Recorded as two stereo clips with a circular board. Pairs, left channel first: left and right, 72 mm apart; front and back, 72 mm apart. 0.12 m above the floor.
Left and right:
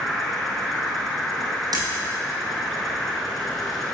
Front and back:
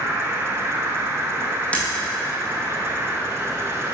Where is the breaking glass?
70° right, 1.9 m.